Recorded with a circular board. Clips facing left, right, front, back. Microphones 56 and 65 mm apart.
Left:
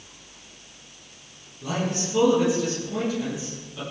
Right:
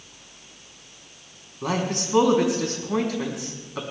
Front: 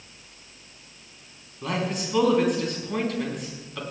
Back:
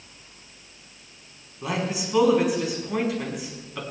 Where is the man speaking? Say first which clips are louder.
Right 2 dB, even; 100° right, 5 m.